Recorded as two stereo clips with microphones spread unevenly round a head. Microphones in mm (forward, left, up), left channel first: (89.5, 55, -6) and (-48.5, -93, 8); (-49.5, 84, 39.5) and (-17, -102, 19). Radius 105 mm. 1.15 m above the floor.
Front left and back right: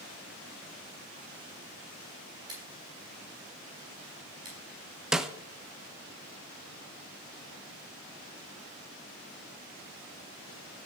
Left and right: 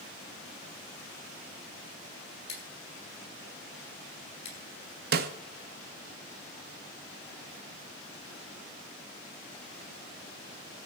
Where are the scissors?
155° left, 7.5 m.